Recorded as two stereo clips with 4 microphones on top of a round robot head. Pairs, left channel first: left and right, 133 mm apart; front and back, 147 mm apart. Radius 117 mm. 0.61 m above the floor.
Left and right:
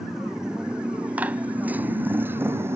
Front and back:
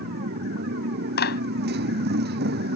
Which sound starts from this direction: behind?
A motorcycle, at 0.0 s.